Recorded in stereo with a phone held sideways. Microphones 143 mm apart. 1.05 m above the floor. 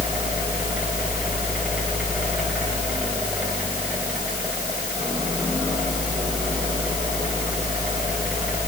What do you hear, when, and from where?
0.0 s a fan: 10° right (ahead or behind), 4 m